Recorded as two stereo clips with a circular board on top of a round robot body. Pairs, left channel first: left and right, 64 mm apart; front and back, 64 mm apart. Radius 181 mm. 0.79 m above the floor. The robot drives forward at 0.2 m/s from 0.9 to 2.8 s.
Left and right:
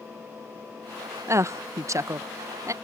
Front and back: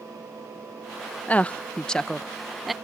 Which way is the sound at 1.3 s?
65° right.